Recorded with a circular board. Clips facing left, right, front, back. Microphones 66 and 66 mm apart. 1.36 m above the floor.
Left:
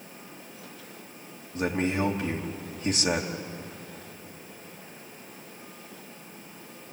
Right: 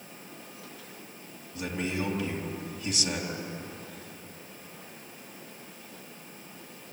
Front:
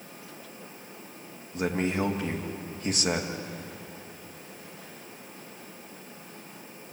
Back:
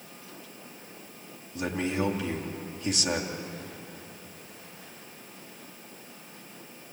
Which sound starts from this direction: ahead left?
A man speaking, at 1.5 s.